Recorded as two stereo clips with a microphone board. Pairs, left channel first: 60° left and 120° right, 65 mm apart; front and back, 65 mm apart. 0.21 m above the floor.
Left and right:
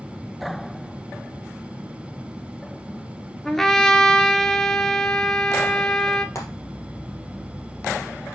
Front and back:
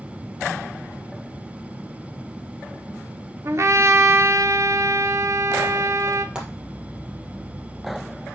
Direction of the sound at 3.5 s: 145° left.